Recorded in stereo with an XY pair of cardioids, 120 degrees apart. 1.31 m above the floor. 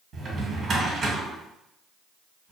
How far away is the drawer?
About 1.4 m.